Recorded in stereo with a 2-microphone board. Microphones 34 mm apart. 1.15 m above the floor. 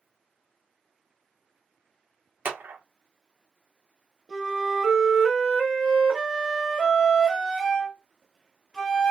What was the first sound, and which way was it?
A clap, 70° right (ahead or behind).